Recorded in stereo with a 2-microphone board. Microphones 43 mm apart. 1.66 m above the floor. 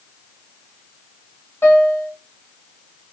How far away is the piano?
About 1.7 m.